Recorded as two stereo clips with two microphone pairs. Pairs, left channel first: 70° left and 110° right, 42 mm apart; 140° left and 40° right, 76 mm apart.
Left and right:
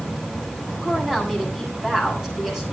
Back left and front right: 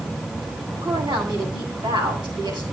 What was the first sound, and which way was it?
A woman speaking, 30° right.